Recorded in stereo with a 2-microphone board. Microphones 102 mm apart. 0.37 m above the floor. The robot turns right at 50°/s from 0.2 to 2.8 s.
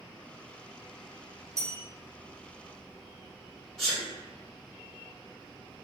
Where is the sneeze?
5° left (ahead or behind), 1.5 m.